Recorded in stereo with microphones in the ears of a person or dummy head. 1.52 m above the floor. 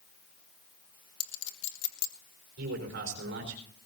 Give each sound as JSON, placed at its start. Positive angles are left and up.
{"t": 1.2, "sound": "a clink", "side_deg": 70, "distance_m": 1.4}
{"t": 2.6, "sound": "a man speaking", "side_deg": -70, "distance_m": 4.5}